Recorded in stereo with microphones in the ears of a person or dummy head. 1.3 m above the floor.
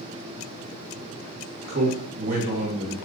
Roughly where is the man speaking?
Right.